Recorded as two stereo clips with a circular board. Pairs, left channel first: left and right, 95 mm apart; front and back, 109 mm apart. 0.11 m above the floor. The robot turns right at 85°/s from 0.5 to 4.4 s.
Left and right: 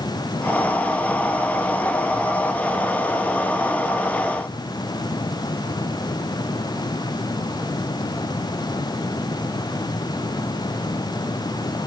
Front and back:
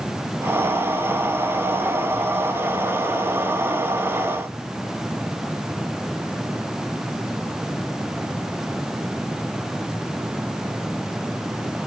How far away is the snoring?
No snoring in this recording.